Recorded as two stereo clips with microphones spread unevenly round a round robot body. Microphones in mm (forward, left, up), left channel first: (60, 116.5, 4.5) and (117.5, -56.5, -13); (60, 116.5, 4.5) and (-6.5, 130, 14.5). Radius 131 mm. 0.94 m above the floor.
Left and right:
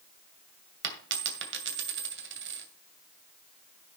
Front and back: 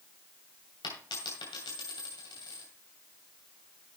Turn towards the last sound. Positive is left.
turn(degrees=-60)